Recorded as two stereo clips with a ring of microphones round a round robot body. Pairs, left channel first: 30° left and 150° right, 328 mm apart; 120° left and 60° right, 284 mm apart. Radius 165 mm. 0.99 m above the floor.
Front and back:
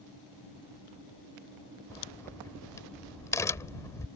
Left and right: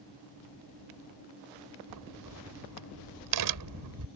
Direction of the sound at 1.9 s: 50° right.